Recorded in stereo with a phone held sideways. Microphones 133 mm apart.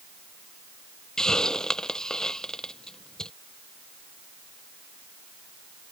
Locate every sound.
1.2 s a hiss: 5° left (ahead or behind)